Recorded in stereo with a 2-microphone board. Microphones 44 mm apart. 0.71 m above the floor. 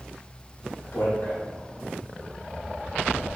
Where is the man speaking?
60° left (ahead or behind), 1.8 m.